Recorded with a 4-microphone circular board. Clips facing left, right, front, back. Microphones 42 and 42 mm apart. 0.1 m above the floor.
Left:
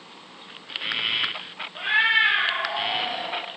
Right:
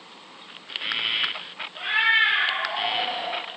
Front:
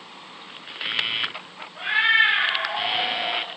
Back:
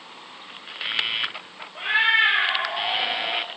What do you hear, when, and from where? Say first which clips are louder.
1.8 s a cat meowing: even, front 1 dB; 165° left, 1.3 m; by 3.5 s 105° right, 1.3 m